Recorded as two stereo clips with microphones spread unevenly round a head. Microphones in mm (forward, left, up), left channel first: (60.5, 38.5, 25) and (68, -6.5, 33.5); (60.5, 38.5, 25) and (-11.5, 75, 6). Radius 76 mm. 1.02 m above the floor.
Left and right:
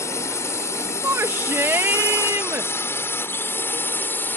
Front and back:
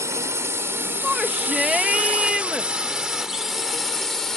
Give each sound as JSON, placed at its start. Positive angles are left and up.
{"t": 0.0, "sound": "a drone", "azimuth_deg": 100}
{"t": 1.0, "sound": "a shout", "azimuth_deg": -125}